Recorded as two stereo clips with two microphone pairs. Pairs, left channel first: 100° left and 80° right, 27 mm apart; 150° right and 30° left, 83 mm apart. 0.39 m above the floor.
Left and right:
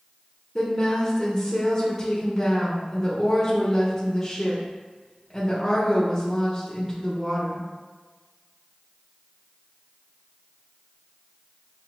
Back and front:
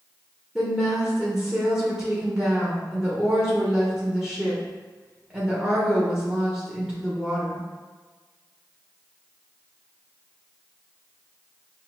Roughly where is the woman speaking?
Left.